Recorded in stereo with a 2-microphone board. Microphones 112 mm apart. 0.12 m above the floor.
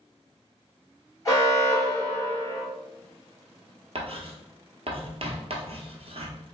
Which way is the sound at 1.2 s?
30° left (ahead or behind).